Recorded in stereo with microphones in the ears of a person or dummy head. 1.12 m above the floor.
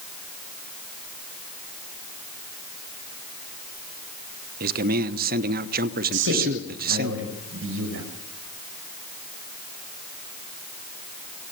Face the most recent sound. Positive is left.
turn(degrees=-70)  # may be behind; listen again after turning